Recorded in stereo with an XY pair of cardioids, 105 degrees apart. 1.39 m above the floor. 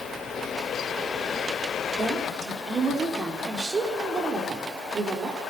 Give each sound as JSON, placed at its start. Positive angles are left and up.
{"t": 2.0, "sound": "a woman speaking", "azimuth_deg": -40, "distance_m": 3.5}